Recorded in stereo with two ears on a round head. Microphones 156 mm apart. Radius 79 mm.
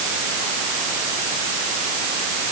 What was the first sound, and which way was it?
Only background noise.